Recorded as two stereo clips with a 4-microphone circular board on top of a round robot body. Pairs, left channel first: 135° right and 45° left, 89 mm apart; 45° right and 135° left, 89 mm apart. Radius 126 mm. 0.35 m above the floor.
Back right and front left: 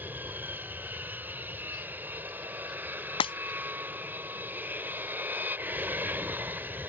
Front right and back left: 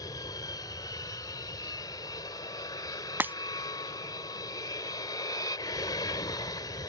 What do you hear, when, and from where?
0.0 s an aircraft: 20° right
3.2 s breaking glass: 155° right